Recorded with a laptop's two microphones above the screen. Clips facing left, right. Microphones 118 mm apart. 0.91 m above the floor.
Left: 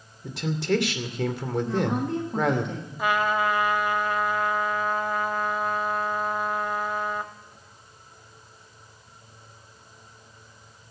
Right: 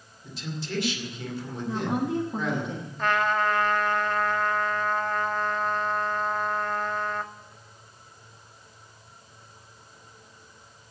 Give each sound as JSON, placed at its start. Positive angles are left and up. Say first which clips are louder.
{"t": 0.2, "sound": "a man speaking", "louder": "left 10 dB", "side_deg": 75, "distance_m": 2.5}
{"t": 1.6, "sound": "a woman speaking", "louder": "right 1 dB", "side_deg": -5, "distance_m": 1.5}
{"t": 3.0, "sound": "a trumpet", "louder": "left 1 dB", "side_deg": 10, "distance_m": 1.4}